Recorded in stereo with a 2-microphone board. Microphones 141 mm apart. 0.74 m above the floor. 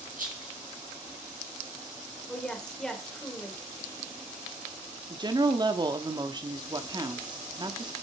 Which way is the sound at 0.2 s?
75° right (ahead or behind).